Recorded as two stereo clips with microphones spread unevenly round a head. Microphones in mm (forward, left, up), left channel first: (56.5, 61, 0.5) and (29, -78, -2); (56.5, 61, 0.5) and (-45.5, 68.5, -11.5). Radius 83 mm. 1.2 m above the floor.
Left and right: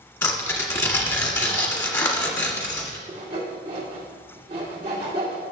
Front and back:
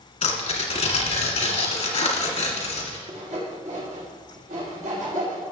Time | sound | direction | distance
0.2 | tearing paper | 10° left | 1.9 m
3.1 | sawing | 165° right | 2 m